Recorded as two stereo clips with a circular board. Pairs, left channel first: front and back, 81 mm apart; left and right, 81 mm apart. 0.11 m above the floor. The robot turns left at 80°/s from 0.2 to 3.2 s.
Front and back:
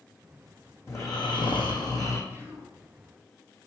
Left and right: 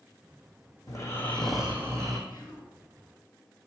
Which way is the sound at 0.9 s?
50° left.